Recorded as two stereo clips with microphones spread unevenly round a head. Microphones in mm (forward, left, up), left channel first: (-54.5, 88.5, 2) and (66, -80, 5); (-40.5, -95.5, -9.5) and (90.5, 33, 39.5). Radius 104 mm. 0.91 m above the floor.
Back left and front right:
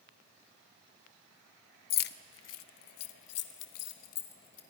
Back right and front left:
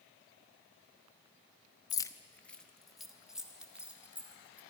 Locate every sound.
1.9 s keys jangling: 165° left, 0.5 m; by 4.6 s 130° left, 2 m